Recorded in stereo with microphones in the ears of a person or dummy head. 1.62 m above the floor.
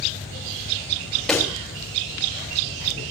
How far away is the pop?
About 1.9 m.